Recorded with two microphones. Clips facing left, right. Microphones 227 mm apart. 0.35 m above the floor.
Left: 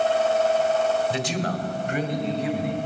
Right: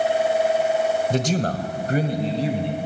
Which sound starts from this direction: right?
A man speaking, at 1.1 s.